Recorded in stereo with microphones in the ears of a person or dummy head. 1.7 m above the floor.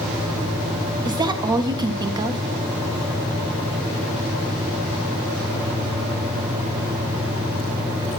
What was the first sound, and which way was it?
A woman speaking, 20° right (ahead or behind).